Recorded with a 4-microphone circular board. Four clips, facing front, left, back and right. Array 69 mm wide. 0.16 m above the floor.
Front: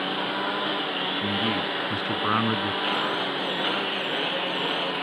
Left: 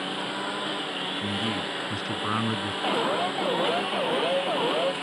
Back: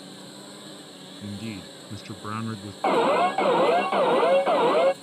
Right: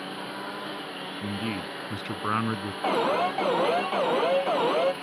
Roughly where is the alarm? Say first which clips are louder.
Right 2 dB, back 6 dB; behind.